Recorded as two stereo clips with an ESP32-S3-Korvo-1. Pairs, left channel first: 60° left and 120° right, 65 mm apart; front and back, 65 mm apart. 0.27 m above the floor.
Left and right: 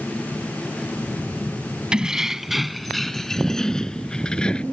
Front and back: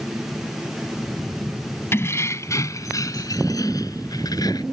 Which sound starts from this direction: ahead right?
Keys jangling, at 1.9 s.